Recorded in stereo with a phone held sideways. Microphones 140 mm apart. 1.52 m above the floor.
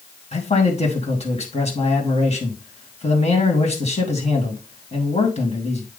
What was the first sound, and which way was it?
A man speaking, 50° left (ahead or behind).